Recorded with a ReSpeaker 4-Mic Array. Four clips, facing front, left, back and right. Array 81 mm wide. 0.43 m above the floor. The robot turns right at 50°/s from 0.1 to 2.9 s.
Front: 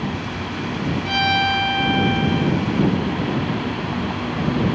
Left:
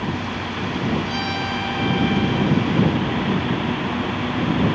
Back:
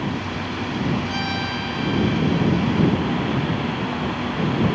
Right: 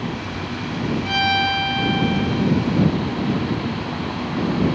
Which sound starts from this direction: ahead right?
A violin, at 1.1 s.